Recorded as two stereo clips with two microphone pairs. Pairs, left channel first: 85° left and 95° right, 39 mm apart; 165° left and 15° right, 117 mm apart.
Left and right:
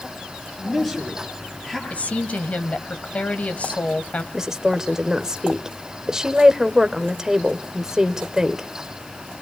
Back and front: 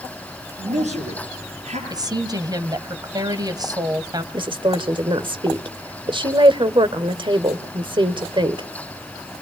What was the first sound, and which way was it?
A man speaking, straight ahead.